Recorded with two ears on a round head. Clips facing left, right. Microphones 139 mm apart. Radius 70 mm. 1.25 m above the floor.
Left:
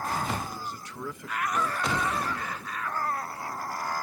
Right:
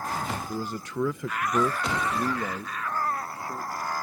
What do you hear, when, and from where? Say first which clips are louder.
0.5 s a man speaking: right 6 dB; 40° right (ahead or behind); by 3.9 s 20° right (ahead or behind)